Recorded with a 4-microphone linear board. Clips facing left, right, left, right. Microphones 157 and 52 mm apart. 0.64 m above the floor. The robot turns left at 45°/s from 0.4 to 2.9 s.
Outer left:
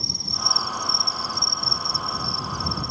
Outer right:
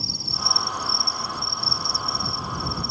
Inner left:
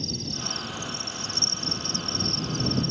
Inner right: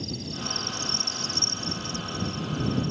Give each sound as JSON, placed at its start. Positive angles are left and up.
{"t": 0.0, "sound": "an insect", "azimuth_deg": -175}